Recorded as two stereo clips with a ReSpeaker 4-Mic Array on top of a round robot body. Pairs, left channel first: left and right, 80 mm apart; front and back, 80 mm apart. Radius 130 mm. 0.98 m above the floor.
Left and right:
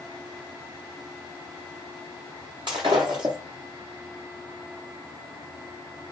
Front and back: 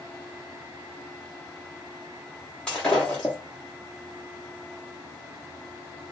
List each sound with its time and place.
2.7 s breaking glass: 80° right, 0.5 m